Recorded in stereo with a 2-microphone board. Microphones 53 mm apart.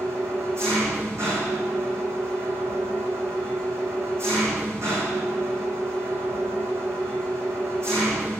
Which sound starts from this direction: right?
An engine running, at 0.0 s.